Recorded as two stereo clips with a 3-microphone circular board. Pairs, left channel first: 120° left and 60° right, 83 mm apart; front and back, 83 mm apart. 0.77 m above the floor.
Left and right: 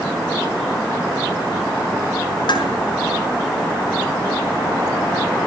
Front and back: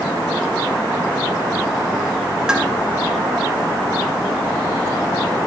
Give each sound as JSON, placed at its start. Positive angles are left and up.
{"t": 2.5, "sound": "dishes clattering", "azimuth_deg": 100, "distance_m": 6.0}